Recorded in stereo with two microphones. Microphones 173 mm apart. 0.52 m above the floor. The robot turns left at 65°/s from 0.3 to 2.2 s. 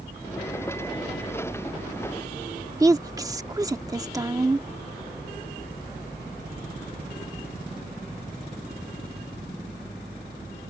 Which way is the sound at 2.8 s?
20° right (ahead or behind).